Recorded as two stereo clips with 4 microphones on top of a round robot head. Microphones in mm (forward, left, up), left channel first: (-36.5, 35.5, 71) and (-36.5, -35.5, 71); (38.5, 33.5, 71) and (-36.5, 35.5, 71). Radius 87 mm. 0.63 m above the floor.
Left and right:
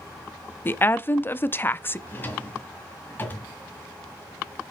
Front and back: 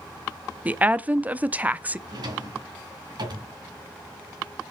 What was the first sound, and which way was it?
A woman speaking, 125° left.